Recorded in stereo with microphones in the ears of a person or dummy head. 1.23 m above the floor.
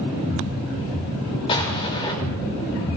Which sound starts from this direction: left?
An explosion, at 1.5 s.